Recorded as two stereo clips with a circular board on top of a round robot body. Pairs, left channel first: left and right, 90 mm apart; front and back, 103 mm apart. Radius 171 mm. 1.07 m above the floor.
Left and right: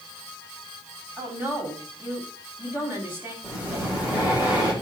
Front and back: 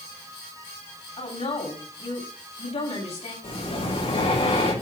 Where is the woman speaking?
25° right, 7 m.